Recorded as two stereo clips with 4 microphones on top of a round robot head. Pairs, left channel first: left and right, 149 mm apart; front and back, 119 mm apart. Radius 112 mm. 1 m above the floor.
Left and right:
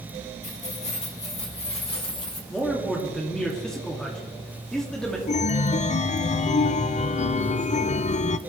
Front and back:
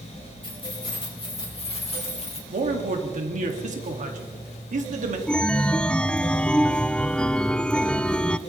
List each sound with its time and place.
0.4 s keys jangling: 50° left, 4 m; by 2.4 s 35° left, 3 m
2.5 s a man speaking: 175° left, 2 m
5.3 s a chime: 80° left, 0.5 m